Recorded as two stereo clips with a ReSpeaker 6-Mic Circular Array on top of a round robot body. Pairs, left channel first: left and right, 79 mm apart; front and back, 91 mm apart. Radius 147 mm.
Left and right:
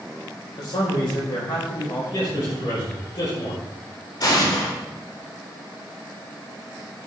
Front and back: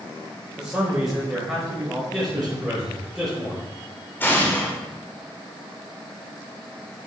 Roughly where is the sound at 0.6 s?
Left.